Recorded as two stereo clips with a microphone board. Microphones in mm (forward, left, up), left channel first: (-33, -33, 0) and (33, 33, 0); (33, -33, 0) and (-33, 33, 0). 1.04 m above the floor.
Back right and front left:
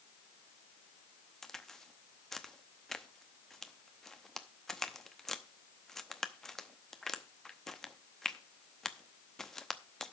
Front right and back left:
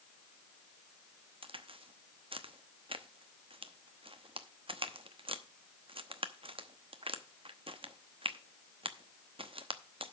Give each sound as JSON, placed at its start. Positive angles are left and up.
{"t": 1.4, "sound": "a crack", "azimuth_deg": 140, "distance_m": 0.8}